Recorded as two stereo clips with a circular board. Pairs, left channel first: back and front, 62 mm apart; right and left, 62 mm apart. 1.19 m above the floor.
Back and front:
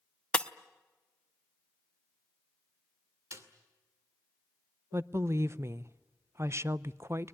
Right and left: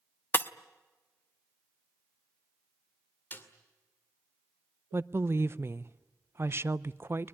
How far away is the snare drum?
About 2.5 m.